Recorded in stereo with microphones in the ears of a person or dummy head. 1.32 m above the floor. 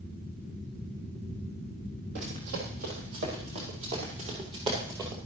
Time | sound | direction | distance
2.1 | running footsteps | 60° right (ahead or behind) | 3 m